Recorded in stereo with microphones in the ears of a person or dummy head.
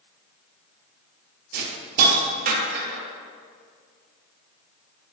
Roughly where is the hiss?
Right.